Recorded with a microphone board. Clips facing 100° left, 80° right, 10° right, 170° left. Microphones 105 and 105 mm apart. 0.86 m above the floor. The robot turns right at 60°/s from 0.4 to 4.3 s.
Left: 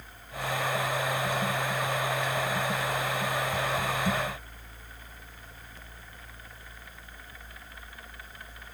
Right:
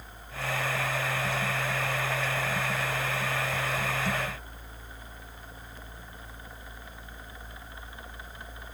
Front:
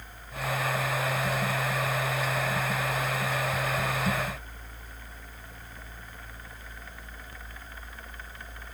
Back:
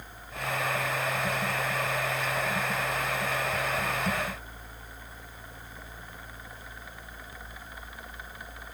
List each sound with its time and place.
Only background noise.